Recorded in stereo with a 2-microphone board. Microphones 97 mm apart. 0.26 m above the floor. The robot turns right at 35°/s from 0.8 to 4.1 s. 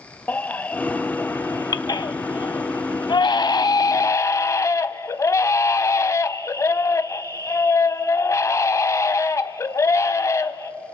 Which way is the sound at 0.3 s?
20° left.